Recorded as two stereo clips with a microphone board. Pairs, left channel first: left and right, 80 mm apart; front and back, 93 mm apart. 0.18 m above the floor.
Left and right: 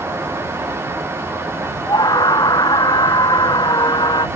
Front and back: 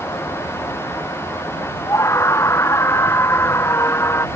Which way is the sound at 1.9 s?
60° left.